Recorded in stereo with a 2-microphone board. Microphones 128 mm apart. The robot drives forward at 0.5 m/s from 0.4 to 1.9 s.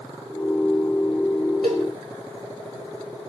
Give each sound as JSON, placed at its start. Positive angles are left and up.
{"t": 1.6, "sound": "a cowbell", "side_deg": -75, "distance_m": 3.0}